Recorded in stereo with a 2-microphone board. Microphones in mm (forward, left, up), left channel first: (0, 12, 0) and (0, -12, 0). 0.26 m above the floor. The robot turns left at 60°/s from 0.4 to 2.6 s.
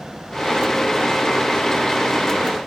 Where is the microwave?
I don't hear a microwave.